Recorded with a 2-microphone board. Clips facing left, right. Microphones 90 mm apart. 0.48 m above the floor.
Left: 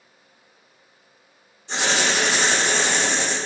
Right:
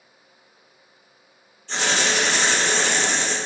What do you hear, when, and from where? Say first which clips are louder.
1.7 s writing: left 1 dB; 15° left (ahead or behind), 0.6 m